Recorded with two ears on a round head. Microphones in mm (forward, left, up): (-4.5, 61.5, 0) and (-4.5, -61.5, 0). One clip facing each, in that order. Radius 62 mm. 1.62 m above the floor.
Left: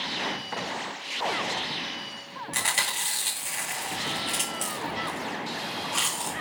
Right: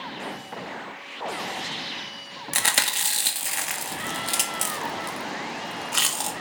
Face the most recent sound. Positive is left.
turn(degrees=-65)  # may be behind; listen again after turning